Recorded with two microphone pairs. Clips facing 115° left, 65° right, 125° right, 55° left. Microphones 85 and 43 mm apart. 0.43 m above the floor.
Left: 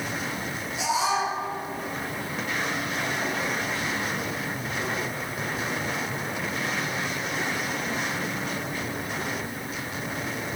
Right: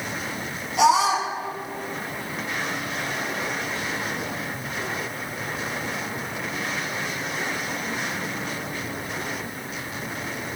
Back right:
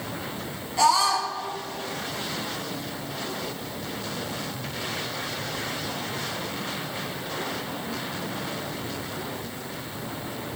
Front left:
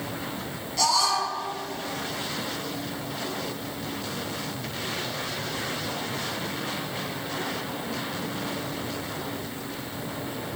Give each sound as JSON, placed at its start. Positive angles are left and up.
{"t": 0.8, "sound": "a scream", "azimuth_deg": -60, "distance_m": 4.5}